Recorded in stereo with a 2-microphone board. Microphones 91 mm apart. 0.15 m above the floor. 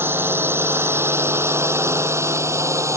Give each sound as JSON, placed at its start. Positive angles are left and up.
{"t": 0.0, "sound": "a drone", "side_deg": -25}